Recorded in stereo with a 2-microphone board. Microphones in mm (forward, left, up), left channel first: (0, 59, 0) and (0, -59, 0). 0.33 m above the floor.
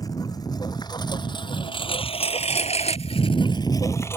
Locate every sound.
0.0 s a lawn mower: 35° left (ahead or behind); by 4.2 s 25° left (ahead or behind)